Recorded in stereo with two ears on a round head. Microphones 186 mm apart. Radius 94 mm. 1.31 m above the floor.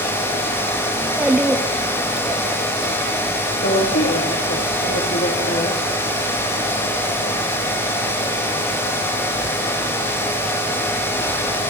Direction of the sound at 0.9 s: 5° right (ahead or behind).